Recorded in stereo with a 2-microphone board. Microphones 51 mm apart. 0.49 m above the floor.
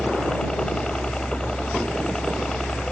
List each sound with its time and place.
0.0 s a helicopter: 15° left (ahead or behind)